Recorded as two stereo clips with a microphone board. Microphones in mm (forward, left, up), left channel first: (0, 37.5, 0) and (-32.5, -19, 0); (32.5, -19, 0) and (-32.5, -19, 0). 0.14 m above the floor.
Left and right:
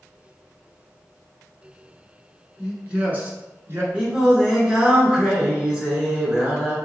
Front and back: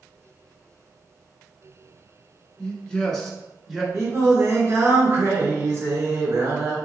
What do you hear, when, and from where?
2.6 s a man speaking: 50° right, 1.4 m; by 3.8 s 95° right, 1.8 m
3.9 s singing: 170° left, 1.8 m